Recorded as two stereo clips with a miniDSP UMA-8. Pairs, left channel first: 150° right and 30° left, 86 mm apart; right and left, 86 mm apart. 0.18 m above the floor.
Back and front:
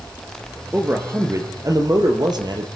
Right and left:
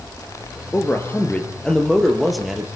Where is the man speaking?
35° right, 3.5 m; by 2.7 s 5° left, 4 m.